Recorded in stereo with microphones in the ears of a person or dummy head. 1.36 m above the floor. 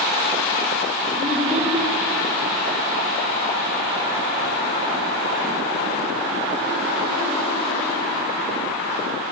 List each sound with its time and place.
1.2 s a child speaking: 10° left (ahead or behind), 5 m